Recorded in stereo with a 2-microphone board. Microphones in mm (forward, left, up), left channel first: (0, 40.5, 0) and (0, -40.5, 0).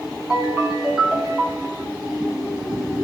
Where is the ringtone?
10° right (ahead or behind), 3.5 m.